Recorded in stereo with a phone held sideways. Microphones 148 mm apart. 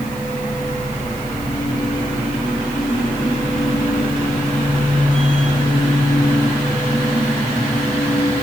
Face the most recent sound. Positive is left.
turn(degrees=10)  # may be behind; listen again after turning